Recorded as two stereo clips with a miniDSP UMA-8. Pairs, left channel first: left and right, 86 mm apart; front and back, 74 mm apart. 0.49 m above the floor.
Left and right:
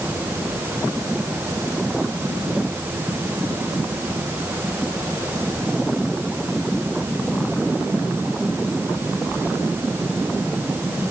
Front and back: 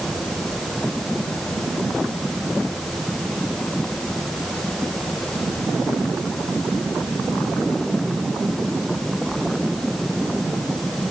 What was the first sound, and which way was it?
Only background noise.